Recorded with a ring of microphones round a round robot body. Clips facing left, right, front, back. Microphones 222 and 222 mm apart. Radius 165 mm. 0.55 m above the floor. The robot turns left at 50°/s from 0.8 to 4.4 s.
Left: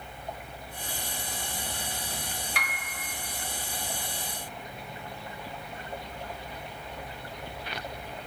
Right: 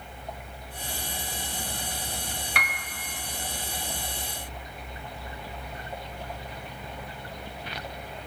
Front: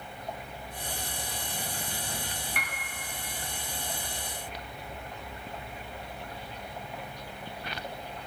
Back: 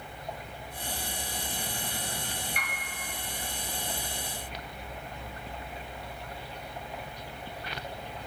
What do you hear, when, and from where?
2.5 s a piano: 55° right, 0.8 m; by 2.8 s 70° right, 0.8 m